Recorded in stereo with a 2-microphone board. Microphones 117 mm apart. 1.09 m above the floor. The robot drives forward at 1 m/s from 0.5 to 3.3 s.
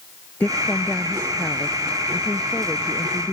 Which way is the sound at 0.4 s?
10° left (ahead or behind).